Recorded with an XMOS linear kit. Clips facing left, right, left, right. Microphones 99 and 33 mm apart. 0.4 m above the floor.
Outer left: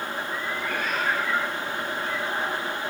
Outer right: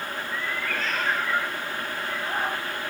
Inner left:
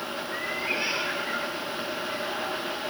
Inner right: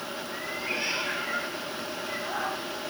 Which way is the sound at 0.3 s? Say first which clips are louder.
Outer right 1 dB, inner left 3 dB; 30° left (ahead or behind).